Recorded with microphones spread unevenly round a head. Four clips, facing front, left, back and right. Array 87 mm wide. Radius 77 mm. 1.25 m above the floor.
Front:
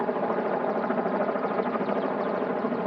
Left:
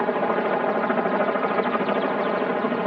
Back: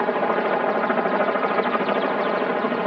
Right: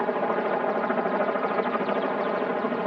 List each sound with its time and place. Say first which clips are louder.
0.0 s a helicopter: left 3 dB, back 5 dB; 165° left